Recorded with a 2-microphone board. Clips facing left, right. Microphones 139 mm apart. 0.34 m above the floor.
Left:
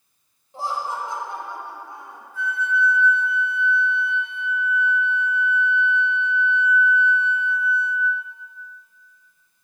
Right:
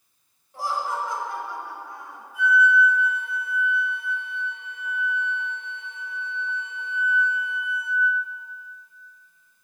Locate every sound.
0.5 s laughter: 25° left (ahead or behind), 1.3 m
2.3 s a flute: 10° right (ahead or behind), 1.5 m